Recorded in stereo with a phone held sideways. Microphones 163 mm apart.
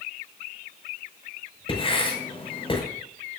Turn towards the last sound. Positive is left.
turn(degrees=35)  # may be behind; listen again after turning